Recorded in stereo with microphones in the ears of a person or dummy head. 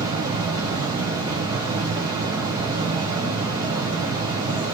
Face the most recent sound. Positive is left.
turn(degrees=-20)  # may be behind; listen again after turning